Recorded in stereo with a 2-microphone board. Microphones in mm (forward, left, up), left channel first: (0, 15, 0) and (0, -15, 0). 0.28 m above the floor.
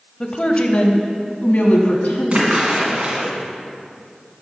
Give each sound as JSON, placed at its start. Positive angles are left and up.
{"t": 0.2, "sound": "a woman speaking", "side_deg": 30, "distance_m": 1.0}
{"t": 2.3, "sound": "a splash", "side_deg": -50, "distance_m": 2.5}